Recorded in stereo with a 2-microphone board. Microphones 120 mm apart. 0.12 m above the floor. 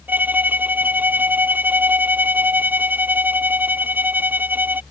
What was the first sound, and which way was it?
A violin, 15° right (ahead or behind).